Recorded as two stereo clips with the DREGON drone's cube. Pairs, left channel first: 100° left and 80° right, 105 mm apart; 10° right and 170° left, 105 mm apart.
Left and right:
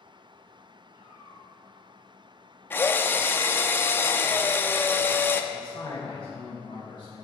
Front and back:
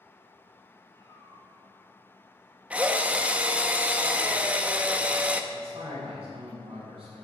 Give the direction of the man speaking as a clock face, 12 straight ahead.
7 o'clock.